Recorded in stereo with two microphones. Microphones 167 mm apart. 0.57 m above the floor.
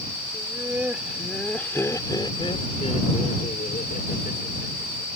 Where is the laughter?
20° right (ahead or behind); by 5.1 s 65° left (ahead or behind).